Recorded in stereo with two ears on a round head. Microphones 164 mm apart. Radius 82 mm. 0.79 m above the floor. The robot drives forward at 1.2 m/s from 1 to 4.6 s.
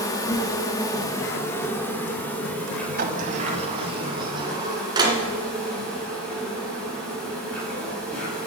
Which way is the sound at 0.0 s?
20° left (ahead or behind).